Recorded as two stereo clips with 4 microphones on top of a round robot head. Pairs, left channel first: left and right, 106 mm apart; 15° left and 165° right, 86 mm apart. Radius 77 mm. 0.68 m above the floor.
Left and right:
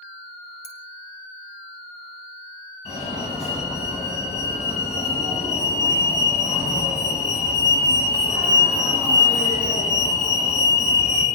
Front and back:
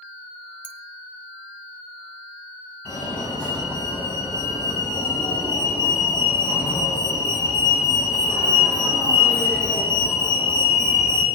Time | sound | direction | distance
0.6 | a clink | 120° left | 3 m
2.9 | a fire alarm | 80° left | 9.5 m